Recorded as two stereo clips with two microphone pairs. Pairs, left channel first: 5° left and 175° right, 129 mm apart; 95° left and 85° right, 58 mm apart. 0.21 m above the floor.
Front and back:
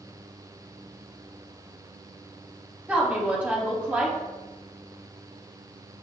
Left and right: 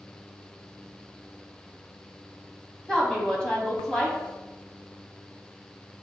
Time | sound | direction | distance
2.9 | a woman speaking | 135° left | 1.1 m